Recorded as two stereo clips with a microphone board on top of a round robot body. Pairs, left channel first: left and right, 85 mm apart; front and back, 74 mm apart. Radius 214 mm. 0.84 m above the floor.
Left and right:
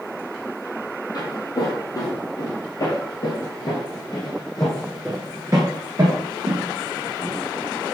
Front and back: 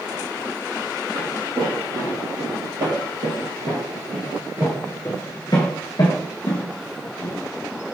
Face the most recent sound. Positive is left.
turn(degrees=-40)